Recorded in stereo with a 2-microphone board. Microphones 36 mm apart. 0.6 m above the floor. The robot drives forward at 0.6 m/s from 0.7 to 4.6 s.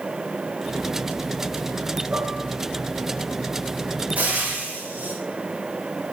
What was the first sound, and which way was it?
Dishes clattering, 50° right (ahead or behind).